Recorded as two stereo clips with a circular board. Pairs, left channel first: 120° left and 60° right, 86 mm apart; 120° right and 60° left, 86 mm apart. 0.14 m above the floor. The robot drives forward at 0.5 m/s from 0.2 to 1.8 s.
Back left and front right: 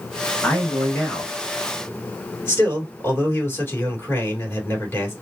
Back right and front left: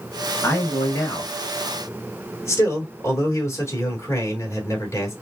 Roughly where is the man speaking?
Behind.